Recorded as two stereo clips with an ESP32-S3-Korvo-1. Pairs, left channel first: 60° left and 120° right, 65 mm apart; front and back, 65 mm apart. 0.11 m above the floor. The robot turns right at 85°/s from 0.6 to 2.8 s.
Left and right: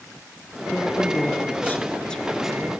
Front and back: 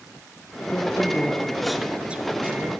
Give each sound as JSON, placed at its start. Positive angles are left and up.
{"t": 0.7, "sound": "a man speaking", "azimuth_deg": 10, "distance_m": 1.2}